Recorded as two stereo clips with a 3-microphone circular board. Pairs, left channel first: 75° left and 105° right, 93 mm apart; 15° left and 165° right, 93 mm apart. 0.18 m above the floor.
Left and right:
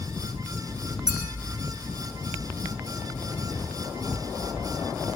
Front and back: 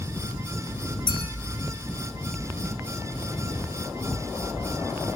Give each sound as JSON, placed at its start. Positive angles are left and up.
{"t": 1.1, "sound": "a clink", "azimuth_deg": -25, "distance_m": 6.5}